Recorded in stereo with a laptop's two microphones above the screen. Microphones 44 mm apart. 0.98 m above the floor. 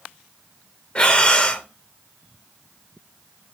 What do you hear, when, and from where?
0.9 s breathing: 25° left (ahead or behind), 0.5 m